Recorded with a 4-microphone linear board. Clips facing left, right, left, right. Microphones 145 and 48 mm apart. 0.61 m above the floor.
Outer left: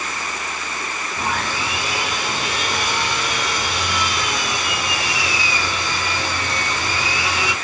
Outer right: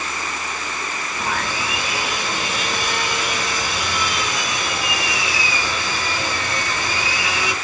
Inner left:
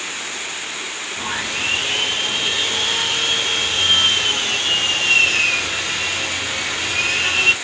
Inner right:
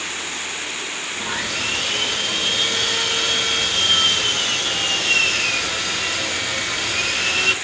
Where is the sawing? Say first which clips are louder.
Outer left 1 dB, inner left 2 dB; 30° left (ahead or behind), 1.3 m.